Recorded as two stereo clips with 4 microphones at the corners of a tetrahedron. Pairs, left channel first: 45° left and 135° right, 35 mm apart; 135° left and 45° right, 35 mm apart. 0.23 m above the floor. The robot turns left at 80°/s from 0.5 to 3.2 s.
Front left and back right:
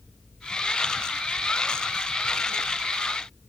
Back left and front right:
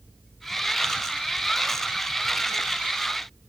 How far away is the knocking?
No knocking in this recording.